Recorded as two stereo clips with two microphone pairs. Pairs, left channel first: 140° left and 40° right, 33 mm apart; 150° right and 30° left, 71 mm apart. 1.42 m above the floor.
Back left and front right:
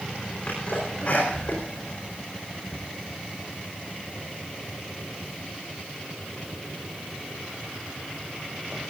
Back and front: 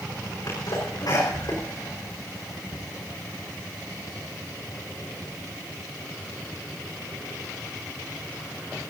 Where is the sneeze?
175° right, 4.5 m.